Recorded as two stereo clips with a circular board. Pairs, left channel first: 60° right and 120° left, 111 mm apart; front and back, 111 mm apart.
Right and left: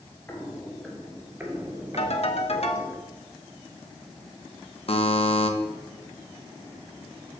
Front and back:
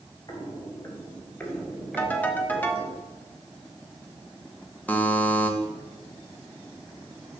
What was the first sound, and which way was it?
Footsteps, straight ahead.